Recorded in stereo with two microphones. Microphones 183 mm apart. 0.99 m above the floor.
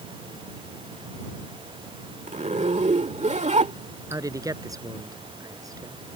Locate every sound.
2.3 s a zipper: 40° right (ahead or behind)
4.1 s a man speaking: 20° right (ahead or behind)